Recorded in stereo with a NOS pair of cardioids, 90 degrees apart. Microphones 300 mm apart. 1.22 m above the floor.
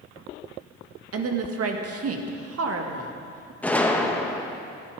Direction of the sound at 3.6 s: 5° left.